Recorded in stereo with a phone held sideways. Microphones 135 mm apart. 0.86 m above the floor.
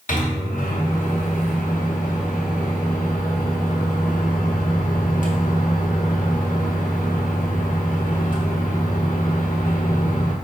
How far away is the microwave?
About 0.8 m.